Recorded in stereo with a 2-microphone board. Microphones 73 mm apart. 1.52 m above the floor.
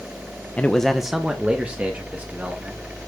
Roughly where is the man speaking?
Centre.